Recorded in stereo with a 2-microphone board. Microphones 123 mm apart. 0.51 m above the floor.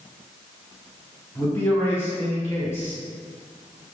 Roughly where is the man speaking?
Left.